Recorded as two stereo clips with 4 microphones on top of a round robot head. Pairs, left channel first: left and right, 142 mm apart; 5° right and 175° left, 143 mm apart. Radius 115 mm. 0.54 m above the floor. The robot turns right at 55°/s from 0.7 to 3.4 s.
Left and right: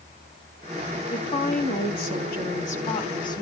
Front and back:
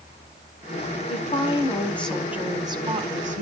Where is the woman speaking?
30° left, 5 m; by 3.4 s 155° left, 5 m.